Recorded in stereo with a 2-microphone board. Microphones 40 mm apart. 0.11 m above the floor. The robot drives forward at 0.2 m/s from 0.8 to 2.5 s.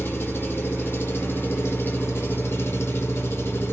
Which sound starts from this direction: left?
An engine running, at 0.0 s.